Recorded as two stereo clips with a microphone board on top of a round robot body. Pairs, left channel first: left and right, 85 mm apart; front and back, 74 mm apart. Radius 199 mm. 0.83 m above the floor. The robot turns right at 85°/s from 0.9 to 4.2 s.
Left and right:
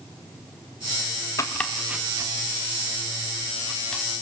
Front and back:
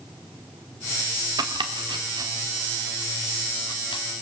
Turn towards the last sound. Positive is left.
turn(degrees=25)